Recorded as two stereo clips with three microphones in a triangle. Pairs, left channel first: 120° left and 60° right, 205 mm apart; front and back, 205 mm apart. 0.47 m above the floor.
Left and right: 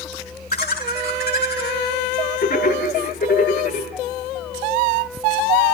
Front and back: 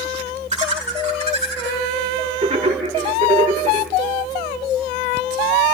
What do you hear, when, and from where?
0.5 s laughter: 135° left, 1.7 m